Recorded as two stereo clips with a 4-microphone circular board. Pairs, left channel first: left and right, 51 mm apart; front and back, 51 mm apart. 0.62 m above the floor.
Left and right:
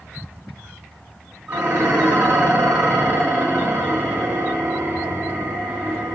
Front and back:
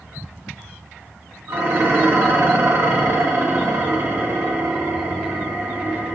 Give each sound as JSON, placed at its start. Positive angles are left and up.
{"t": 1.5, "sound": "dishes clattering", "azimuth_deg": -150, "distance_m": 3.5}